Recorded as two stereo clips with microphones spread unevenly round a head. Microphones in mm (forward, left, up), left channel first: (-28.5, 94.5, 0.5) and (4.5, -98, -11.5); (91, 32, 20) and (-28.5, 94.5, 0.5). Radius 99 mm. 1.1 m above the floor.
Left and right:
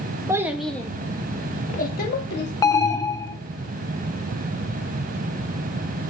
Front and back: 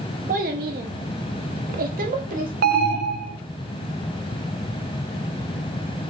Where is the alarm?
170° left, 0.5 m.